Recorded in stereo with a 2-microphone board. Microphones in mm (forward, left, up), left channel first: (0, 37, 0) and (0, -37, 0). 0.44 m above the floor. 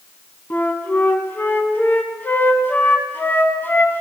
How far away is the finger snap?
I don't hear a finger snap.